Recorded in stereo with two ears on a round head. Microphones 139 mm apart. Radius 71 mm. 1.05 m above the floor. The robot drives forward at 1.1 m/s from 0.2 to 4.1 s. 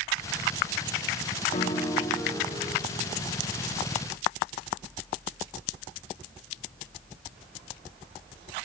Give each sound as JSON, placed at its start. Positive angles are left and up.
{"t": 1.5, "sound": "a piano", "side_deg": 40, "distance_m": 0.5}